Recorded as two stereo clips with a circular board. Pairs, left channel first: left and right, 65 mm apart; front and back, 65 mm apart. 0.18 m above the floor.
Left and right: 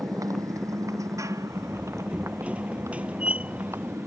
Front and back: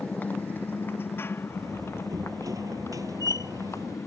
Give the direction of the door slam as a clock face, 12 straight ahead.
5 o'clock.